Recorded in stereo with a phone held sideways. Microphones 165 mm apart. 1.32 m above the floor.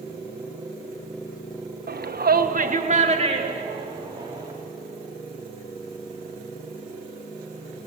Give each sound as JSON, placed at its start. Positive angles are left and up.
{"t": 1.9, "sound": "a shout", "side_deg": -70, "distance_m": 1.4}